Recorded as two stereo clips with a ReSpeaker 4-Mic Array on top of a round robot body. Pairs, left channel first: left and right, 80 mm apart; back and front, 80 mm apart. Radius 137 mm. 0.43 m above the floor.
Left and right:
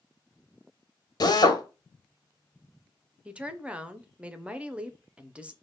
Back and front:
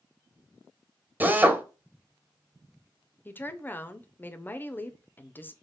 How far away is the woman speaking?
About 0.8 m.